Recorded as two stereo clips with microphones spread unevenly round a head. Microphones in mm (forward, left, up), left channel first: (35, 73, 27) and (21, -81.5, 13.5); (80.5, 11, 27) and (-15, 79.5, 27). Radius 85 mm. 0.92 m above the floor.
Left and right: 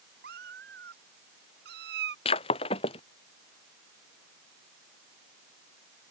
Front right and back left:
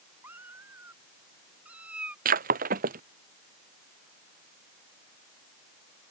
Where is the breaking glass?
145° left.